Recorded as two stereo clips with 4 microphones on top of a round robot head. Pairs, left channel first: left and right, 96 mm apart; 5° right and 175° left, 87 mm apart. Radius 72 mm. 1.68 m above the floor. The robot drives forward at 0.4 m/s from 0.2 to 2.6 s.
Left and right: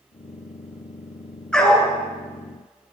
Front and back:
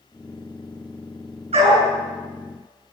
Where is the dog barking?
170° left, 8.5 m.